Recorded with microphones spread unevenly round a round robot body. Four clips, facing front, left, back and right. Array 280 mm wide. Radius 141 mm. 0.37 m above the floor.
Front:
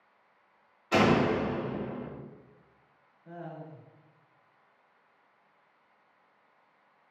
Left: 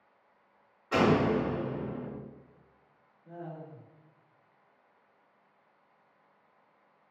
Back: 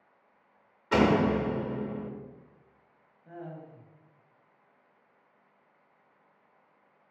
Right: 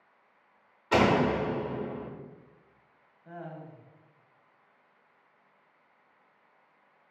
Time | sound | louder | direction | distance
0.9 | a door slam | right 1 dB, back 1 dB | 135° right | 0.8 m
3.2 | laughter | even, even | 75° right | 1.0 m